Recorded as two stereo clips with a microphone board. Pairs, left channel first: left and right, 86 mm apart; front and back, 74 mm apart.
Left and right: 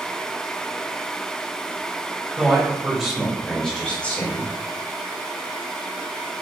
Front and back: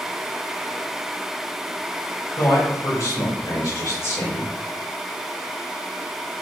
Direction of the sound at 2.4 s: 15° right.